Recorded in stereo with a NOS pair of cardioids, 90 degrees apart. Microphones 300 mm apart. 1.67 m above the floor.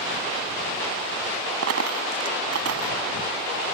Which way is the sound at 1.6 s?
55° right.